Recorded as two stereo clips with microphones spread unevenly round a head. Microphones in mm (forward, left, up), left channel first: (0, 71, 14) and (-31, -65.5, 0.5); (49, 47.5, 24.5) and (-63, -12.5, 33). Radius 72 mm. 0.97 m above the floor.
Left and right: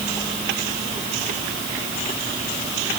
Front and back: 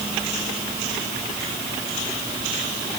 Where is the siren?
I don't hear a siren.